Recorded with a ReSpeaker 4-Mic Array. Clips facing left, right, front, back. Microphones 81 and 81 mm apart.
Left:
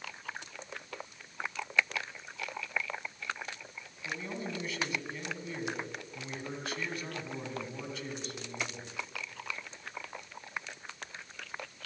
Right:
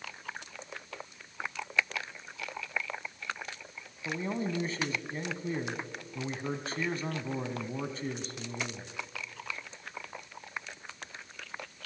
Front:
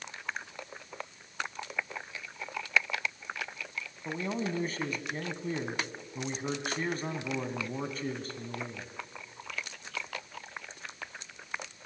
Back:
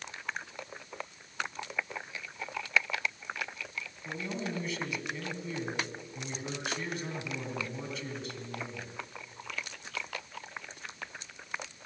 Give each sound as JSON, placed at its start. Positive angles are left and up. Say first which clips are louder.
{"t": 4.0, "sound": "a man speaking", "louder": "right 5 dB, front 4 dB", "azimuth_deg": -40, "distance_m": 2.5}